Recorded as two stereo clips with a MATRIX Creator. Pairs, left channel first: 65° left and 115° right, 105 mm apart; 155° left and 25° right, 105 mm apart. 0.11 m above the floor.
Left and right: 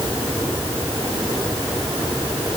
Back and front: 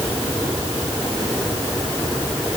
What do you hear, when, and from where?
Only background noise.